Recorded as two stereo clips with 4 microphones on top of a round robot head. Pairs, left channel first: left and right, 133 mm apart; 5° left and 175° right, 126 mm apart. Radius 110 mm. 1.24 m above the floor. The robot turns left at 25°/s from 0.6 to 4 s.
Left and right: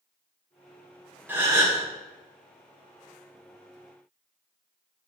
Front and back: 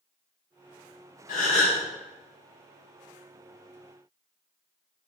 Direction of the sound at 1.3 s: 15° right.